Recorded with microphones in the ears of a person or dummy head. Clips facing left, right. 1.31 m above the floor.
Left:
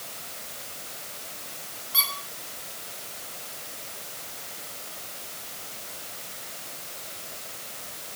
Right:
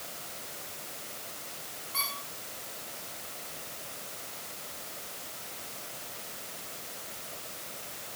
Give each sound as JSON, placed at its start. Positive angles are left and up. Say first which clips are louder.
{"t": 1.9, "sound": "a squeak", "louder": "left 3 dB", "side_deg": 20, "distance_m": 3.0}